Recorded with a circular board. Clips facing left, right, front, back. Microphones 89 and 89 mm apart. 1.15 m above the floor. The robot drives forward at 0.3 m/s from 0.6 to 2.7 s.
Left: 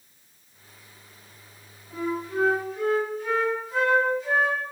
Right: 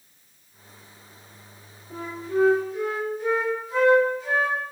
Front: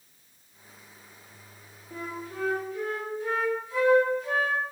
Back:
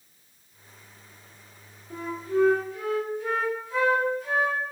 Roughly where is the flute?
Behind right.